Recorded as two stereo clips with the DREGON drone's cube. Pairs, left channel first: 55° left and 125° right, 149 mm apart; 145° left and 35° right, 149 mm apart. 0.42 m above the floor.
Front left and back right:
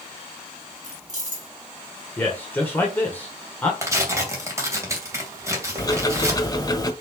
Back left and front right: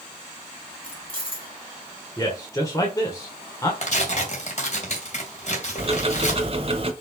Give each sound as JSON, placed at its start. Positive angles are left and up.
{"t": 0.8, "sound": "keys jangling", "azimuth_deg": -160, "distance_m": 3.0}
{"t": 2.2, "sound": "a man speaking", "azimuth_deg": 115, "distance_m": 1.5}
{"t": 3.8, "sound": "tearing paper", "azimuth_deg": 170, "distance_m": 2.0}
{"t": 5.8, "sound": "ticking", "azimuth_deg": 0, "distance_m": 1.1}